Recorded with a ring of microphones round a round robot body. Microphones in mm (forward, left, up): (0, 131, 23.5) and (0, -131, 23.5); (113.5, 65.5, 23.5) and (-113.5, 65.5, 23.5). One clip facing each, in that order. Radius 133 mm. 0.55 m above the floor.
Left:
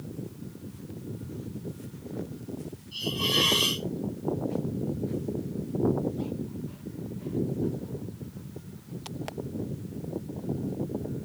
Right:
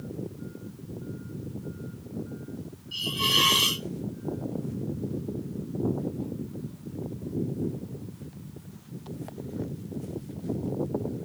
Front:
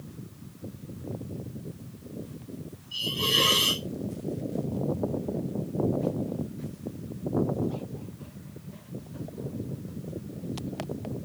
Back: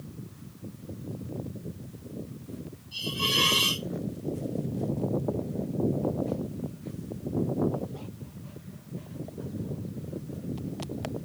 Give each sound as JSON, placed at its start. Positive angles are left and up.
{"t": 2.9, "sound": "a hiss", "azimuth_deg": -75, "distance_m": 1.7}